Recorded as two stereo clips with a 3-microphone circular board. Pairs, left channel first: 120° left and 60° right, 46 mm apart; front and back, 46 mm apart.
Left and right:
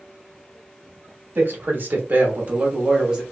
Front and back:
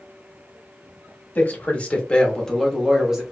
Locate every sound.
1.4 s a man speaking: 35° right, 1.2 m; by 3.2 s 120° right, 0.8 m